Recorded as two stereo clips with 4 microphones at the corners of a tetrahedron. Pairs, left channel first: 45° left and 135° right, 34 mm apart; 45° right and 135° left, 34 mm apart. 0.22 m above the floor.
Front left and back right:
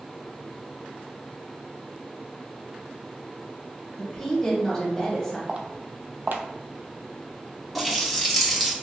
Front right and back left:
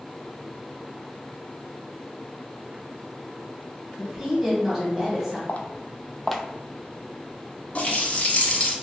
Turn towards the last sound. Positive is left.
turn(degrees=-45)